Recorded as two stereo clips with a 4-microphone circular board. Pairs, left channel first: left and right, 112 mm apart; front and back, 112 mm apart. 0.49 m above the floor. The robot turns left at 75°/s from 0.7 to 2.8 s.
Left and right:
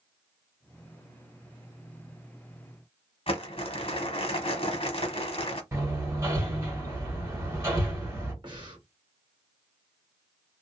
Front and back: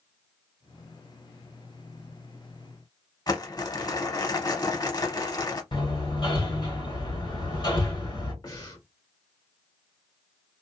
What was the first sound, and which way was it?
Crumpling, 55° left.